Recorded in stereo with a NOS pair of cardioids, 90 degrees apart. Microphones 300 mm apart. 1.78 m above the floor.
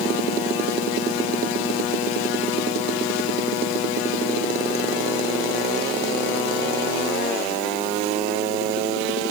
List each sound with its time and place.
Only background noise.